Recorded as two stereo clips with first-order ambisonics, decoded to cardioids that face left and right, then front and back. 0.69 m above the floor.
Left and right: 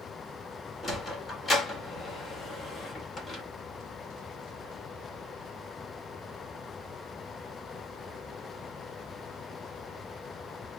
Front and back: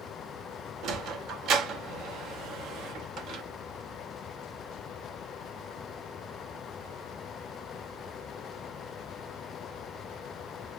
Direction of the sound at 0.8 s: 160° left.